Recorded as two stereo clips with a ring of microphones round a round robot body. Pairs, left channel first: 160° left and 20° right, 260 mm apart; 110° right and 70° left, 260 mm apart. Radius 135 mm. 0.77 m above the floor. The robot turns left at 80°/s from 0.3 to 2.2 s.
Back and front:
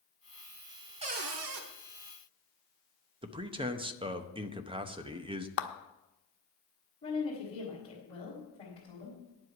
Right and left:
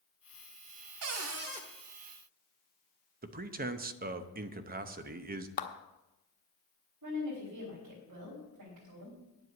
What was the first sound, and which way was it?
A cupboard door, 45° left.